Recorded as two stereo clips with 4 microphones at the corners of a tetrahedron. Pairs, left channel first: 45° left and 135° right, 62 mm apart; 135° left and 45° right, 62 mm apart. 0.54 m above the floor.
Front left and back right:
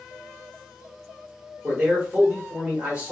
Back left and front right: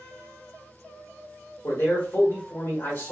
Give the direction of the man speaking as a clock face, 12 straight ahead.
6 o'clock.